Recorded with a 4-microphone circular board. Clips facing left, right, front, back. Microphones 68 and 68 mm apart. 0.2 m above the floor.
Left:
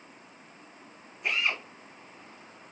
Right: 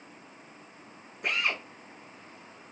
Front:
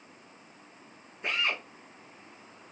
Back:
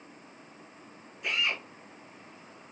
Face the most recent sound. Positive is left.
turn(degrees=-55)